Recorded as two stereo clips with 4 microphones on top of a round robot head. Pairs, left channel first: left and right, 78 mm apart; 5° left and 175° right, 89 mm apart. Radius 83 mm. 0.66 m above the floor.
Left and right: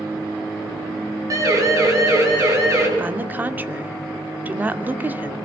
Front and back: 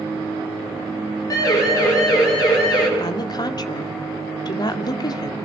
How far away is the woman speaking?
About 2 m.